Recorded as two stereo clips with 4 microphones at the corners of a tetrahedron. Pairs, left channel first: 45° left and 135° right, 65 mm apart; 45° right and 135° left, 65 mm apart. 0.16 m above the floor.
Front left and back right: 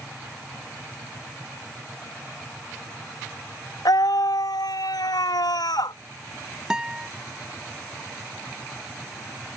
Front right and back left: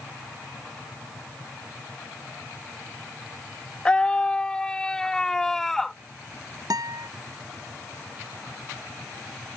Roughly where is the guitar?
Behind left.